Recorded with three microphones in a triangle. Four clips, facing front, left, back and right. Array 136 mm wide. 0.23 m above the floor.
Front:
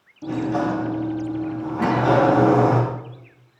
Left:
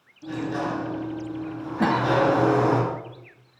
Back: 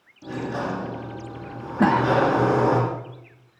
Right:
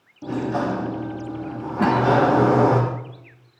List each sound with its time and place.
0.2 s a sliding door: 55° right, 8.5 m
1.8 s a cough: 175° right, 1.4 m